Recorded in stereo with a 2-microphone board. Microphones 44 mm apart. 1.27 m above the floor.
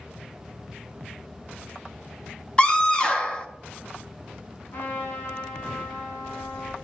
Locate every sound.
2.6 s a scream: 25° left (ahead or behind), 1.6 m
4.7 s a trumpet: 45° left (ahead or behind), 5.5 m